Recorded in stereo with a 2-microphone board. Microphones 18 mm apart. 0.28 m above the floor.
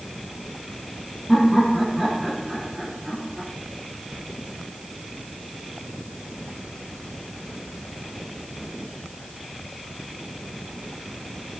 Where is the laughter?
20° right (ahead or behind), 9.5 m.